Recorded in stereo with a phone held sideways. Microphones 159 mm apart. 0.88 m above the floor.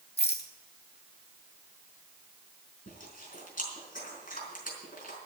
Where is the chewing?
55° left (ahead or behind), 4.5 m.